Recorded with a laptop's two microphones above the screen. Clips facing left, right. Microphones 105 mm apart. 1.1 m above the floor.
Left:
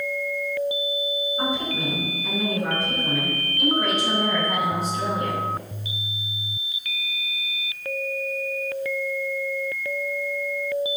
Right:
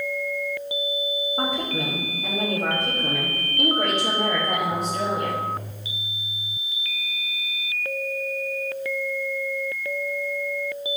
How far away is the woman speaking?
About 4.5 m.